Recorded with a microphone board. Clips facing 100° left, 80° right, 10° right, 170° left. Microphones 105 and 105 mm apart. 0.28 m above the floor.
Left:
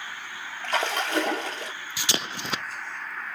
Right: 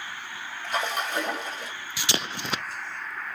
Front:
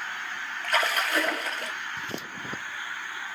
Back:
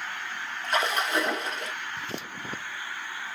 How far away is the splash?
About 1.0 m.